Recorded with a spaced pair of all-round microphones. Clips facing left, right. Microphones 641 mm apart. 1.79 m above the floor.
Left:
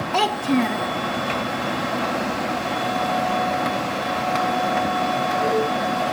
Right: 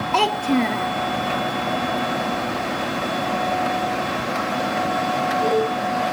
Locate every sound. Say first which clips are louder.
0.1 s a child speaking: even; 5° left (ahead or behind), 0.5 m